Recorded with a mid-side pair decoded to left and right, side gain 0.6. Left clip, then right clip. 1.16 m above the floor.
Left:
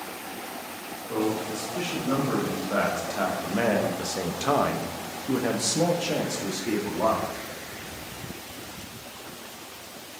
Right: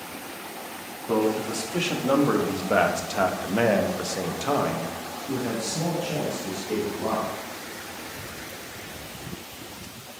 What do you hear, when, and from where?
1.1 s a man speaking: 65° right, 2 m; by 7.3 s 60° left, 2 m